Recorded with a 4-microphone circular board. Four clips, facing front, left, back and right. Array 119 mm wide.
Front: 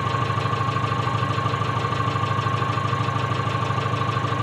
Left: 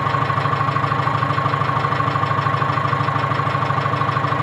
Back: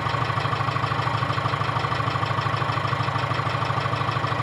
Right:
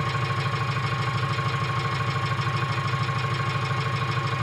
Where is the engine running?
100° left, 4.5 m.